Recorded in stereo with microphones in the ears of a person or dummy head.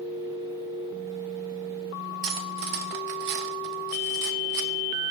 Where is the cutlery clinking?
60° right (ahead or behind), 0.6 m.